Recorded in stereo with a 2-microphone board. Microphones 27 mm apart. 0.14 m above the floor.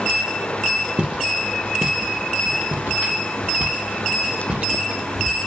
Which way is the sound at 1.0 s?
45° right (ahead or behind).